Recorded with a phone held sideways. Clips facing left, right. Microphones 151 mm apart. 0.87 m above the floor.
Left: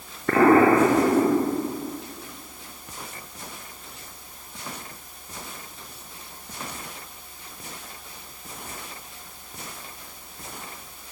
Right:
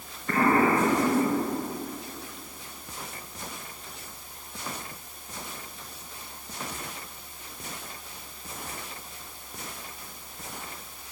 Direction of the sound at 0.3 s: 80° left.